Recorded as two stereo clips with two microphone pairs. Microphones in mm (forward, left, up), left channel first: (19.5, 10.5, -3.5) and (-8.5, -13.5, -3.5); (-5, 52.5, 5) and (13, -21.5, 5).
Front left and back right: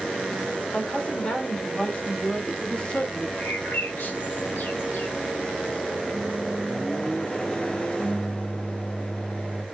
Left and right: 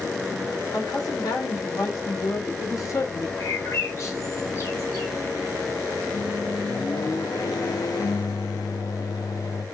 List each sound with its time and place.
0.7 s a woman speaking: 85° left, 1.9 m; by 3.3 s 90° left, 0.7 m
3.4 s a bird: 60° left, 0.9 m
6.1 s a microwave: 95° left, 0.7 m